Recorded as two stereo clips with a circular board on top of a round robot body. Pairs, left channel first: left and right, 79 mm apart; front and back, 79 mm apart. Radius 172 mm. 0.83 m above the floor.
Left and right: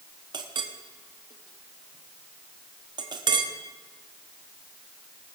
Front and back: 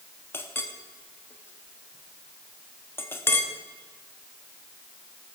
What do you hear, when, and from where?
0.3 s a clink: 65° right, 0.9 m